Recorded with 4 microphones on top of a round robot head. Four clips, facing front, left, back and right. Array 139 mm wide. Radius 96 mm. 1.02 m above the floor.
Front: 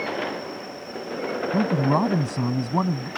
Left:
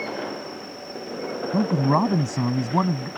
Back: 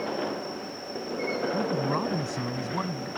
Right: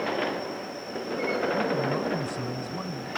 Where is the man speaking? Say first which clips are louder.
Left 6 dB, front 10 dB; 55° left.